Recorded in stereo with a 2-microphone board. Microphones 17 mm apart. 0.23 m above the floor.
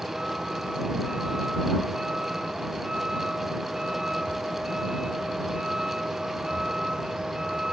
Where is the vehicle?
40° right (ahead or behind).